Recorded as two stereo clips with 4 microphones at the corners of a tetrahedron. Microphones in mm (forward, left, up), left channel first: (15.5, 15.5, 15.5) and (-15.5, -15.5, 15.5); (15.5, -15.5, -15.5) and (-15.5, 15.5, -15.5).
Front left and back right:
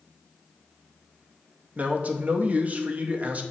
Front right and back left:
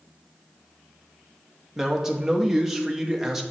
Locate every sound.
1.8 s a man speaking: 150° right, 0.6 m